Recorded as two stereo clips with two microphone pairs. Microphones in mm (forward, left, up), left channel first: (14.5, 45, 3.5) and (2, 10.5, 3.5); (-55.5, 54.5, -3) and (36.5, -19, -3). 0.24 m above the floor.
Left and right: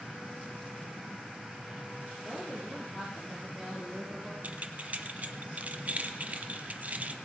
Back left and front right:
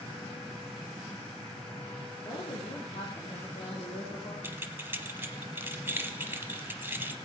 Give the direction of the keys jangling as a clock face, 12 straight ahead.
3 o'clock.